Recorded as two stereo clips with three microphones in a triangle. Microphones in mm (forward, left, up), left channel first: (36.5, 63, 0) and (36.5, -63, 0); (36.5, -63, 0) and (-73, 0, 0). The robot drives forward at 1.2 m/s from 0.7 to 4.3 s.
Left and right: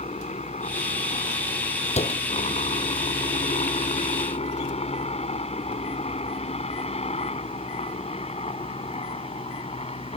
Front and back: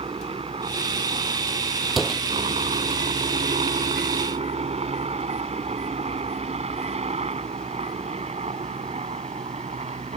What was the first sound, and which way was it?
A helicopter, 110° left.